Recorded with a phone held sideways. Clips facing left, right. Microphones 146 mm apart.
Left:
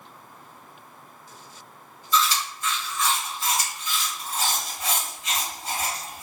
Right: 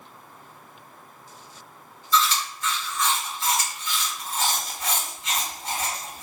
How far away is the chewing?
About 1.5 m.